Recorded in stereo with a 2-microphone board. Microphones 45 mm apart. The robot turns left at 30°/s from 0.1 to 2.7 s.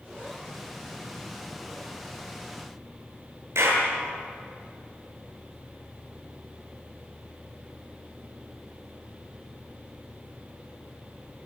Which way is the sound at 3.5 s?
85° right.